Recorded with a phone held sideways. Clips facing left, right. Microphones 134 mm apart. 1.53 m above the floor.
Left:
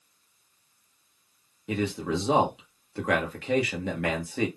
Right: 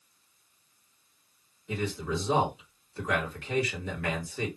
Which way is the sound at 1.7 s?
70° left (ahead or behind).